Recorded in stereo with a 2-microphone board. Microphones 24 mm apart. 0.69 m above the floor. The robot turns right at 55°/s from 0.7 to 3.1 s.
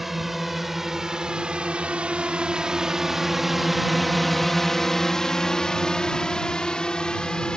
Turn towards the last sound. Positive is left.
turn(degrees=40)  # may be behind; listen again after turning